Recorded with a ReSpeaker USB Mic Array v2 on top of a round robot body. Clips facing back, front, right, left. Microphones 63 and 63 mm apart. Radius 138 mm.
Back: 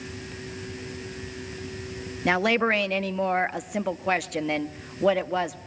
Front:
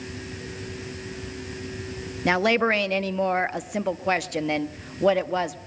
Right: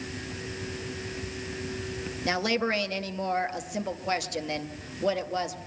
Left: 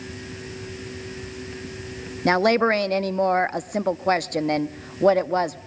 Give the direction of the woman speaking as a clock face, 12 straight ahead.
9 o'clock.